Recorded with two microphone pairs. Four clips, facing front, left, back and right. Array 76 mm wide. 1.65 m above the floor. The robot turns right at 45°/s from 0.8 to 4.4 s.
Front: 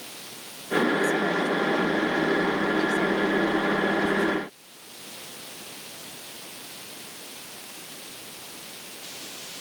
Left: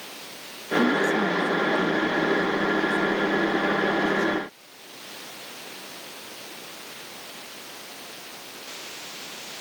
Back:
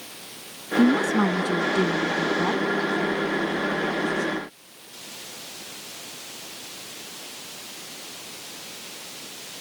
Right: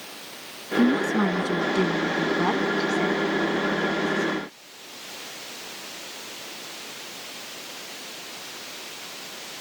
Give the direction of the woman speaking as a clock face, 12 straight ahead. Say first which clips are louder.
Right 1 dB, back 4 dB; 6 o'clock.